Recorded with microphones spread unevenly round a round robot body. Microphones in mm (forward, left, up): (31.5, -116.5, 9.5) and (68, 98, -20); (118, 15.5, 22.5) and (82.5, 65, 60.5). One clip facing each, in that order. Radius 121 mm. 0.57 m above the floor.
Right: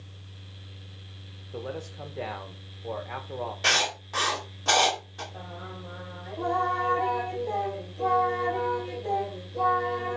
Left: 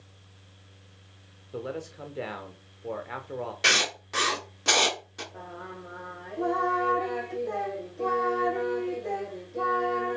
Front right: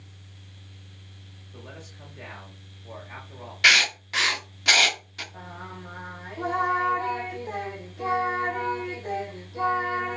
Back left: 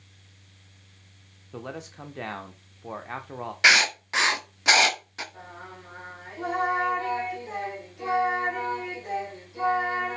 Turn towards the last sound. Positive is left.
turn(degrees=5)